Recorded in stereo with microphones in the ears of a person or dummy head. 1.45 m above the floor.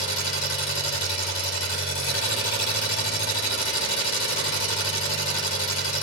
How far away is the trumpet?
No trumpet in this recording.